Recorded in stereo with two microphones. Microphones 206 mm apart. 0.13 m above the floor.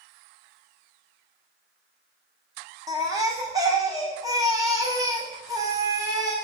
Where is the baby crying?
15° right (ahead or behind), 2.5 m.